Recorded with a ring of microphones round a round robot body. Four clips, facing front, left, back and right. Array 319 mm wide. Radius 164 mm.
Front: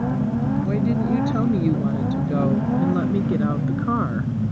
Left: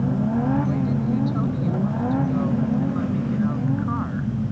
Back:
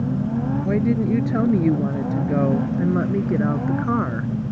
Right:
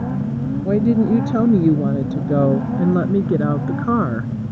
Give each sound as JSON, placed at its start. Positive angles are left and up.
{"t": 0.6, "sound": "a woman speaking", "azimuth_deg": -105}